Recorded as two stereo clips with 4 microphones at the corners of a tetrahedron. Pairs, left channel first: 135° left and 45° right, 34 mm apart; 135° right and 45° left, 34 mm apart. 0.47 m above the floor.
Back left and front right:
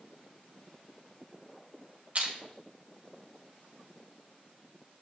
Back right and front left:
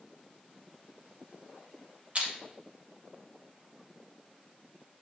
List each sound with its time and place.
2.1 s crushing: straight ahead, 1.9 m